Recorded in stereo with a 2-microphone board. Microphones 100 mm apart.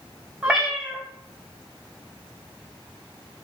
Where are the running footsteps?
No running footsteps in this recording.